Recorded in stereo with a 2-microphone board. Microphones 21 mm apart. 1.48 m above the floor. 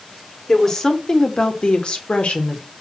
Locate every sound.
0.5 s a woman speaking: 25° left (ahead or behind), 1.4 m; by 2.6 s 70° left (ahead or behind), 1.4 m